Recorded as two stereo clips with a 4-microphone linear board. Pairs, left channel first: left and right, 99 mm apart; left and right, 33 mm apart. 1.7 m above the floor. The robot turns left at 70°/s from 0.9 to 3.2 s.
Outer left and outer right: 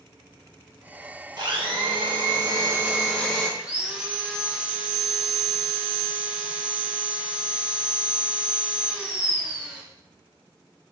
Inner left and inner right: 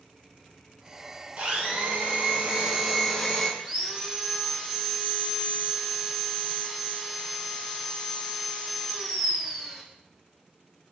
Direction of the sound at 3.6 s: 10° right (ahead or behind).